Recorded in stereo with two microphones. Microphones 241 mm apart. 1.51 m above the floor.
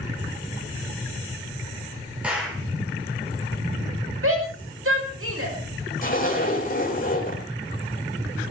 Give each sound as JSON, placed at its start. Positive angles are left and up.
{"t": 2.2, "sound": "a clap", "side_deg": -5, "distance_m": 5.0}
{"t": 4.2, "sound": "a shout", "side_deg": -70, "distance_m": 6.0}
{"t": 6.0, "sound": "a zipper", "side_deg": 40, "distance_m": 4.5}